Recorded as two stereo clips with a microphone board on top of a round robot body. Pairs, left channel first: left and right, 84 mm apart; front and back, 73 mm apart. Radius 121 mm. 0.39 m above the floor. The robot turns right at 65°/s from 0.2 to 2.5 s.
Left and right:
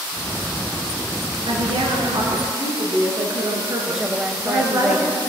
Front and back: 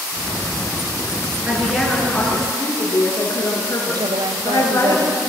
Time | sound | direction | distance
1.5 | a woman speaking | 110° right | 9.5 m
4.0 | a woman speaking | 175° right | 2 m